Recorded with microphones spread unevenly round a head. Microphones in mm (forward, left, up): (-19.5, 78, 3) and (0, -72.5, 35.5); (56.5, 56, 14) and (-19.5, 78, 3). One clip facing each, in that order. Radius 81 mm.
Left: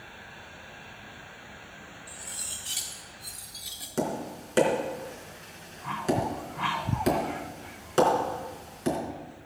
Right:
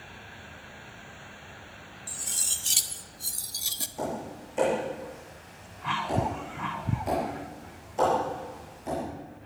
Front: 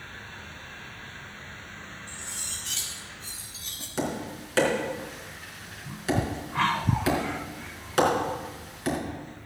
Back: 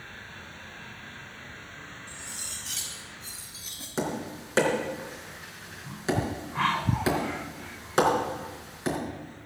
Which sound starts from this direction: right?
Cutlery clinking, at 2.1 s.